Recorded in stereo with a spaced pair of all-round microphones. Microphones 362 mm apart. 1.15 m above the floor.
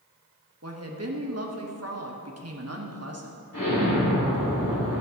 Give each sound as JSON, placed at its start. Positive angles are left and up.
{"t": 0.6, "sound": "a woman speaking", "side_deg": -45, "distance_m": 1.3}
{"t": 3.5, "sound": "an explosion", "side_deg": 75, "distance_m": 2.0}